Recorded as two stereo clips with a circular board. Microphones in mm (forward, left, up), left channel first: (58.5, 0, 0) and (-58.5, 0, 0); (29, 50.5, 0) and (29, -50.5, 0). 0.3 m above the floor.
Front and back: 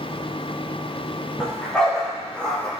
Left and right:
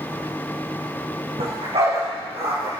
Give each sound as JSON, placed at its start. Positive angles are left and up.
{"t": 1.4, "sound": "a dog barking", "azimuth_deg": -85, "distance_m": 4.5}